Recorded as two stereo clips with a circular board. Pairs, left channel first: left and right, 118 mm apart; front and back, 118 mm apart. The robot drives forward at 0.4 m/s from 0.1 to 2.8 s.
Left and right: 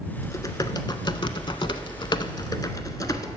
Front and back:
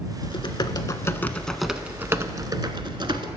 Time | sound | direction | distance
0.2 | typing on a keyboard | 35° left | 0.8 m